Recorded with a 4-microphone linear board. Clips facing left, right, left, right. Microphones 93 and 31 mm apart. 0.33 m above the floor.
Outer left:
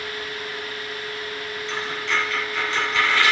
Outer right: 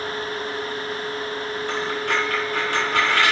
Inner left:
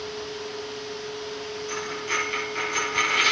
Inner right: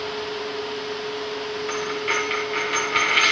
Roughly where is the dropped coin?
Right.